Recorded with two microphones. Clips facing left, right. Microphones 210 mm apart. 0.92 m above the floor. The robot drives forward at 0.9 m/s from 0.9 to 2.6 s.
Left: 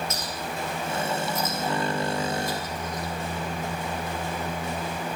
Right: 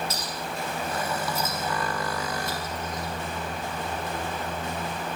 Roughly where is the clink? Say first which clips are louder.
Left 1 dB; right.